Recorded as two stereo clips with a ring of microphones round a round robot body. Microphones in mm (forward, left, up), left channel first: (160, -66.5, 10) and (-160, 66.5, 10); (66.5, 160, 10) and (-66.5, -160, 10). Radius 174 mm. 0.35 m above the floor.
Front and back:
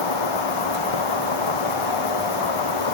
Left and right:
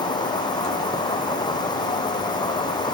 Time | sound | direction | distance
0.0 | an insect | 10° right | ?